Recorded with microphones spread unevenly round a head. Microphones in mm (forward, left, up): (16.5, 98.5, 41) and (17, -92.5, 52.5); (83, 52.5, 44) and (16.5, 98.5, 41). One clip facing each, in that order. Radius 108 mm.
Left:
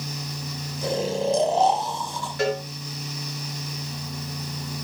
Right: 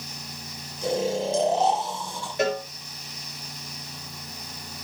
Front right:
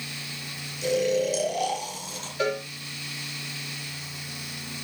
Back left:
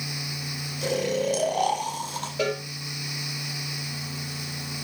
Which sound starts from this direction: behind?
A cowbell, at 2.4 s.